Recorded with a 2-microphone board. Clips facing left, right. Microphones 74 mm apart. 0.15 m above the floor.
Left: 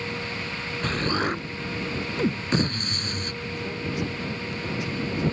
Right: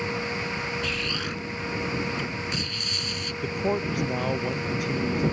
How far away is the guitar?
I don't hear a guitar.